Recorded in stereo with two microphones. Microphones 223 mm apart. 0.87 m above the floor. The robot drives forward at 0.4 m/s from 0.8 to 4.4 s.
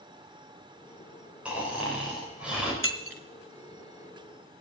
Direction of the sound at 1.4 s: 5° right (ahead or behind).